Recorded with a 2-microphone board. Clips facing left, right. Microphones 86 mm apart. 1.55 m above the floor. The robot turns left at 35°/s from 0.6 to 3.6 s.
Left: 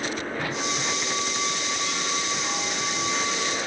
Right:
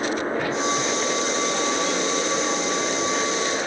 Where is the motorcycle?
30° right (ahead or behind); by 3.7 s 25° right (ahead or behind).